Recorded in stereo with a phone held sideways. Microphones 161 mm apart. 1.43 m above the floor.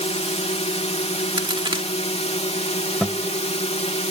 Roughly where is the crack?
Right.